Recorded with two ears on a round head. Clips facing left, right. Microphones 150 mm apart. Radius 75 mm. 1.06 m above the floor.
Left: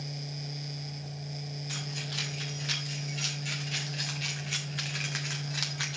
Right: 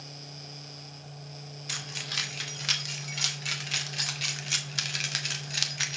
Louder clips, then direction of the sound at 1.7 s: Left 4 dB; 80° right.